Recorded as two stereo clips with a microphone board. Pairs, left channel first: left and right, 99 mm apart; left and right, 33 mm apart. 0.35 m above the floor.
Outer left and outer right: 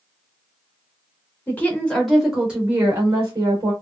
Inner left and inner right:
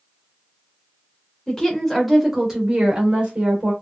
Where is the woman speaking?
20° left (ahead or behind), 1.1 m; by 3.7 s 40° right (ahead or behind), 1.3 m.